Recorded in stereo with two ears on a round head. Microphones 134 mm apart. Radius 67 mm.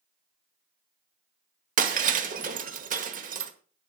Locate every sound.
1.8 s breaking glass: 55° right (ahead or behind), 1.2 m